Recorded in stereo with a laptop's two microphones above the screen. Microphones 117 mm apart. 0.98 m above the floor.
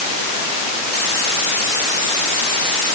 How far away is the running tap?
No running tap in this recording.